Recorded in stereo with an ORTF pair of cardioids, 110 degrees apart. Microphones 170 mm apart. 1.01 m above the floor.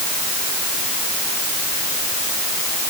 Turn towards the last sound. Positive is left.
No sound to turn to.